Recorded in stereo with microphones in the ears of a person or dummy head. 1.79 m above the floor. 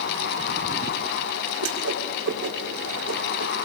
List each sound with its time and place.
1.6 s a whoosh: 85° right, 6.5 m